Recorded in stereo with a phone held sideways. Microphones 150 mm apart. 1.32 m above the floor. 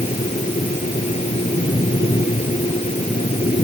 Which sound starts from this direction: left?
A fan, at 0.0 s.